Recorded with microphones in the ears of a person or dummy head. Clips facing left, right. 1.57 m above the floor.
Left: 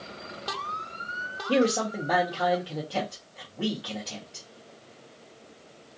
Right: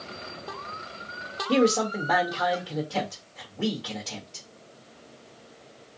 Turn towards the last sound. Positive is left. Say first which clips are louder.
# right 2 dB
turn(degrees=15)  # may be behind; listen again after turning